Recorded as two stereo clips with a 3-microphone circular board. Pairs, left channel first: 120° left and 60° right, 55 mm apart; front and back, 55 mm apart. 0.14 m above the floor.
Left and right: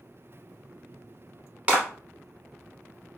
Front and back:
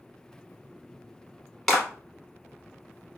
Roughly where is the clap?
Right.